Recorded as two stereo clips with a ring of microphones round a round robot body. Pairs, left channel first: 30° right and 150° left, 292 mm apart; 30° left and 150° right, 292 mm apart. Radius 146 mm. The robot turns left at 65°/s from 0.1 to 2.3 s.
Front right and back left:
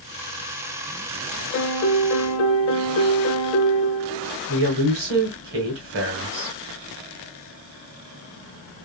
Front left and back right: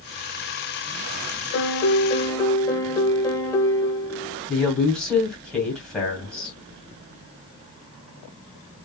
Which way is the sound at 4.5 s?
115° left.